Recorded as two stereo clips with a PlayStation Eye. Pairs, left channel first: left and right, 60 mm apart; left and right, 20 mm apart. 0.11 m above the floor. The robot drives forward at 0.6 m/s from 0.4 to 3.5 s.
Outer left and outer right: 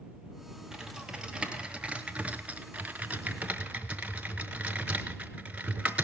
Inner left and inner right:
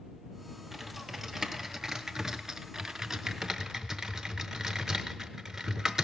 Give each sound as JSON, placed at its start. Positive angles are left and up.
{"t": 0.7, "sound": "typing on a keyboard", "side_deg": -15, "distance_m": 1.4}